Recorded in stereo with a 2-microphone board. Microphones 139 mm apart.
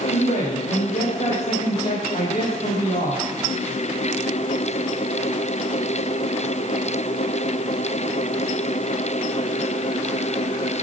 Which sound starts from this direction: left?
A man speaking, at 0.1 s.